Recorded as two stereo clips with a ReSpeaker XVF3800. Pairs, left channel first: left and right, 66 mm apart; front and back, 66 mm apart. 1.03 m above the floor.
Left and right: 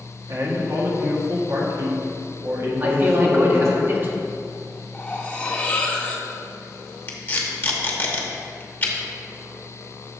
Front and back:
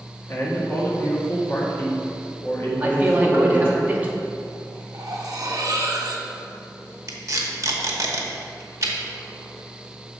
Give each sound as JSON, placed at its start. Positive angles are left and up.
{"t": 0.3, "sound": "a man speaking", "azimuth_deg": -55, "distance_m": 1.6}
{"t": 2.8, "sound": "a man speaking", "azimuth_deg": -125, "distance_m": 0.9}
{"t": 4.9, "sound": "cutlery clinking", "azimuth_deg": 160, "distance_m": 0.7}
{"t": 7.1, "sound": "tape being pulled", "azimuth_deg": 145, "distance_m": 0.9}